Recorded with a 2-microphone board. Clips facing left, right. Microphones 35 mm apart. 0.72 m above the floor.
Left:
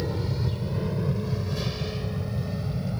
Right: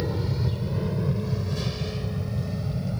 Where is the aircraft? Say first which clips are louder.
Right 1 dB; 5° right (ahead or behind); by 3.0 s 5° left (ahead or behind).